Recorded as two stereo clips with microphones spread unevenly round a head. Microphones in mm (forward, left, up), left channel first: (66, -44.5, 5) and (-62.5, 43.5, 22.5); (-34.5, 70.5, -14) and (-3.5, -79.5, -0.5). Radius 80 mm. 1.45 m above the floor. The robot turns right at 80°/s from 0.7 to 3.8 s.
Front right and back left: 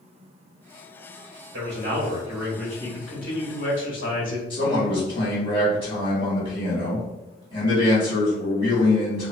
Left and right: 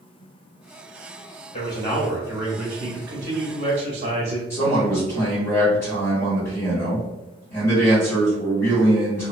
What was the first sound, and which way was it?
A man speaking, 155° left.